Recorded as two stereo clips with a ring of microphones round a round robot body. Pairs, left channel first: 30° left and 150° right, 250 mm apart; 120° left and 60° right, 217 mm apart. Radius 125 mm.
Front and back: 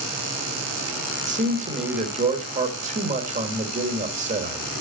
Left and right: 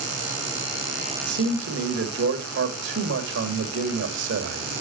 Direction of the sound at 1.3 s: 90° right.